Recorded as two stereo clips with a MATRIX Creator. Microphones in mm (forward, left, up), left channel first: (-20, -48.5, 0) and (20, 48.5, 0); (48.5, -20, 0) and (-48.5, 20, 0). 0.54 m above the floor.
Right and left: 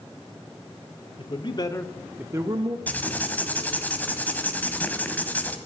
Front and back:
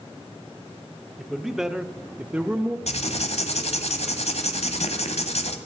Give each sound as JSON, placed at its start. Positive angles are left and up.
{"t": 1.2, "sound": "a man speaking", "azimuth_deg": -115, "distance_m": 1.7}
{"t": 2.9, "sound": "writing", "azimuth_deg": -35, "distance_m": 1.7}